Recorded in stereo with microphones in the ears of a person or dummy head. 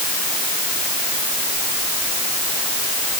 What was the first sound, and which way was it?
Only background noise.